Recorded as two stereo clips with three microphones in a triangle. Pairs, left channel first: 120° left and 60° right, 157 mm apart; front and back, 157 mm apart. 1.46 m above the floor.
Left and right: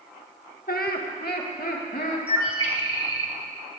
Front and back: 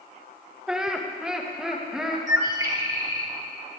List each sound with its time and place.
0.7 s laughter: 95° left, 1.4 m
2.3 s a bird: 115° right, 1.7 m